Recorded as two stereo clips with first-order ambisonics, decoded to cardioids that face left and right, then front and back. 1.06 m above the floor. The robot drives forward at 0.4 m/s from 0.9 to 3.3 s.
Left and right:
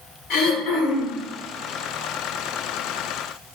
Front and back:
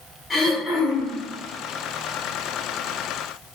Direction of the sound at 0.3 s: 85° left.